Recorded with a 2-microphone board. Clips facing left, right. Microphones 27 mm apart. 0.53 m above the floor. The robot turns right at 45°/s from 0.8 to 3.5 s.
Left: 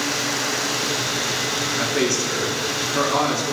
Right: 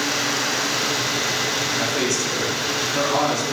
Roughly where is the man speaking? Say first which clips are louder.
Left 1 dB; left.